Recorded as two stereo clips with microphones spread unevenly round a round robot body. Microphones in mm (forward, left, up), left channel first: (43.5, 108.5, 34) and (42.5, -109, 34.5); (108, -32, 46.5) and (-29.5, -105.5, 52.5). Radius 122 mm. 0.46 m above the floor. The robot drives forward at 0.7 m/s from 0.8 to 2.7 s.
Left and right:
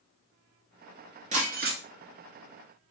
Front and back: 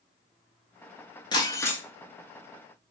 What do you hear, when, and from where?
1.3 s breaking glass: 35° right, 0.9 m; by 1.8 s 55° right, 0.7 m